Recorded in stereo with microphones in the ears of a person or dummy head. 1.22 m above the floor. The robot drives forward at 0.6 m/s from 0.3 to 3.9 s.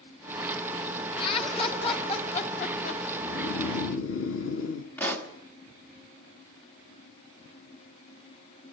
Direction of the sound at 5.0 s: 10° left (ahead or behind).